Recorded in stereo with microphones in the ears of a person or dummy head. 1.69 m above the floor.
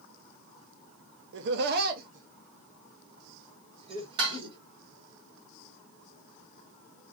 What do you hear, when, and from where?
1.3 s laughter: 65° right (ahead or behind), 0.6 m; by 4.6 s 30° right (ahead or behind), 2 m
4.2 s dishes clattering: 30° right (ahead or behind), 1.4 m